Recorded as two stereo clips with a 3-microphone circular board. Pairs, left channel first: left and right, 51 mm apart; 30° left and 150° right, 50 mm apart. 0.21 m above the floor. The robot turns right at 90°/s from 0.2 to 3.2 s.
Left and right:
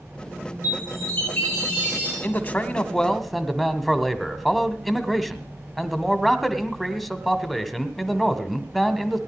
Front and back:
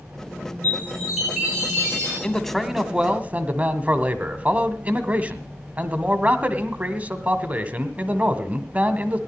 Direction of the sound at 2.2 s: 90° left.